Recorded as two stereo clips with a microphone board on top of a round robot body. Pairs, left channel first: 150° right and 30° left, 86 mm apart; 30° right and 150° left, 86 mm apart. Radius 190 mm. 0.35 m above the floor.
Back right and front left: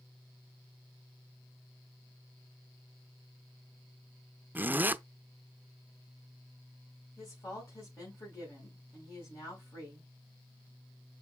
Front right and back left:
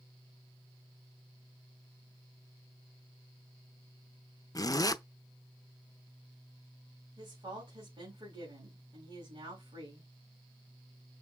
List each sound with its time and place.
4.5 s a zipper: 30° right, 0.7 m
7.2 s a woman speaking: 160° left, 4.5 m